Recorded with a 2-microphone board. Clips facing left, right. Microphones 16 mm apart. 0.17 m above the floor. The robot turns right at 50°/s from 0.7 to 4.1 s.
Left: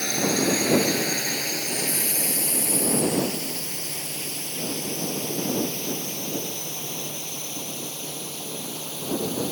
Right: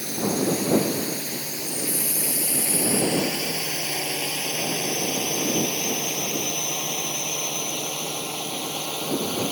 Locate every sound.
0.0 s a drone: 60° left (ahead or behind); by 9.5 s 70° right (ahead or behind)